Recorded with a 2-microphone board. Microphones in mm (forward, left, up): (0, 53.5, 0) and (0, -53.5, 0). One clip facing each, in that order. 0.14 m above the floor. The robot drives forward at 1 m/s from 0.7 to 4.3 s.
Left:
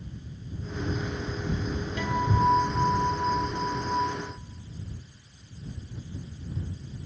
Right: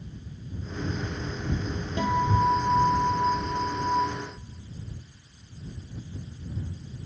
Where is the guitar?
25° right (ahead or behind), 8 m; by 4.0 s 20° right (ahead or behind), 9.5 m.